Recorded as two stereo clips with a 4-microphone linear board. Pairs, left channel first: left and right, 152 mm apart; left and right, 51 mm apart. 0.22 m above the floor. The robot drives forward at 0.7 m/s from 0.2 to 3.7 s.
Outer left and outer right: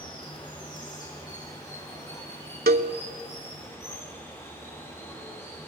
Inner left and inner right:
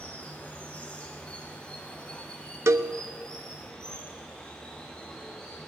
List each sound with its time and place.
0.0 s running water: 30° left (ahead or behind), 3.5 m; by 5.7 s 20° left (ahead or behind), 5.5 m
2.7 s a cowbell: 80° right, 0.6 m; by 2.9 s 70° right (ahead or behind), 0.6 m